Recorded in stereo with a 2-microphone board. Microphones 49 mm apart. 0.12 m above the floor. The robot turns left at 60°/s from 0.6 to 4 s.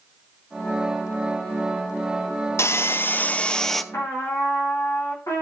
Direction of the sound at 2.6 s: 75° left.